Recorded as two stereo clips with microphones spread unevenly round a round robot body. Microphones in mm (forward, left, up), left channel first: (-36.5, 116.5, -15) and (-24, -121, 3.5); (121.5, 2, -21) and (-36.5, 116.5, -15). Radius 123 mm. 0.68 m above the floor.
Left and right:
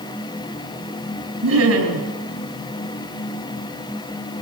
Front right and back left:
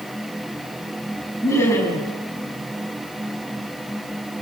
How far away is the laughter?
About 5 m.